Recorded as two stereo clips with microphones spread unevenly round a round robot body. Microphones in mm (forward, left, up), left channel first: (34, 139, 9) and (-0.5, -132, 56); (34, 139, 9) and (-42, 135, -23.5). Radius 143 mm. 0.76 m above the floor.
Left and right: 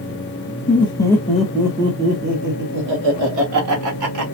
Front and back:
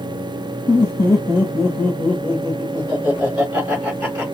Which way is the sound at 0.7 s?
65° left.